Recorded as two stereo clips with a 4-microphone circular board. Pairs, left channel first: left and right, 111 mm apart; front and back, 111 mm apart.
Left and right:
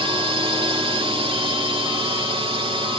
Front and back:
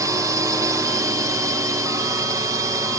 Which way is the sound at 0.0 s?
125° right.